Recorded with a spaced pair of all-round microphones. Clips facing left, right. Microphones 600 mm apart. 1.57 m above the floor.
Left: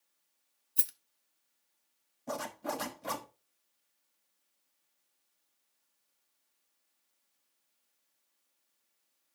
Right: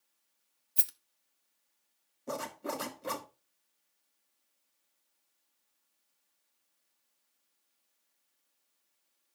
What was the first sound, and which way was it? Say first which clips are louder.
A rattle: left 1 dB; 30° right (ahead or behind).